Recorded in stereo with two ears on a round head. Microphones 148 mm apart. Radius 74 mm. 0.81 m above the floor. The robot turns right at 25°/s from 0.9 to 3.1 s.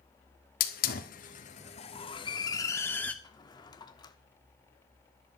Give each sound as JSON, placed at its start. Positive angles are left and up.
{"t": 0.6, "sound": "a hiss", "side_deg": 60, "distance_m": 1.6}
{"t": 3.2, "sound": "a drawer", "side_deg": 25, "distance_m": 1.1}